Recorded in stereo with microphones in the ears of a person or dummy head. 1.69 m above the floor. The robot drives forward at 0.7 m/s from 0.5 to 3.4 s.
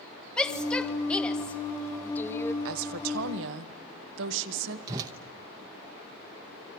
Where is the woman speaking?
80° right, 1.2 m; by 4.8 s 65° right (ahead or behind), 1.3 m.